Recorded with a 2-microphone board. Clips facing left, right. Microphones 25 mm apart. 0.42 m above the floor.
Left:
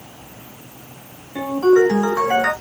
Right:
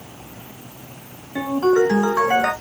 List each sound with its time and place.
1.4 s a ringtone: 10° right (ahead or behind), 1.2 m